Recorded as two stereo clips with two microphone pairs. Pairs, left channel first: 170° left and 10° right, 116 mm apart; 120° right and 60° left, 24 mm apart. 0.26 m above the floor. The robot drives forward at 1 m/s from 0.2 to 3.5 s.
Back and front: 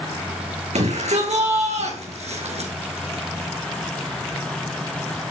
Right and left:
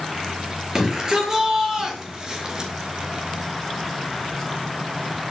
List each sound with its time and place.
0.8 s a shout: straight ahead, 6.5 m